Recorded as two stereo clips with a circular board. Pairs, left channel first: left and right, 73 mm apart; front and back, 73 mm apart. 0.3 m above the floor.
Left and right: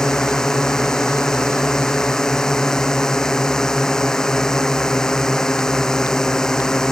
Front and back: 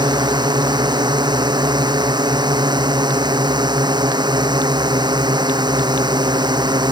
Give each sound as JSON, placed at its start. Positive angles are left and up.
{"t": 0.0, "sound": "a drone", "azimuth_deg": 170}